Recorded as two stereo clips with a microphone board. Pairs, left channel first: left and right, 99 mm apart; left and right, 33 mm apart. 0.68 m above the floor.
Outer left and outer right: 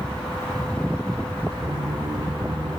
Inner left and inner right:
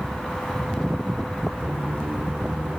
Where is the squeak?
40° right (ahead or behind), 0.5 m.